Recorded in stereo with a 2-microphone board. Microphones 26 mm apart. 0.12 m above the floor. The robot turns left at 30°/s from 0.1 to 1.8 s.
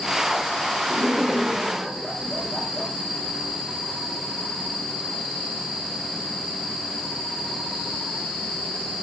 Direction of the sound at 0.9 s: 5° left (ahead or behind).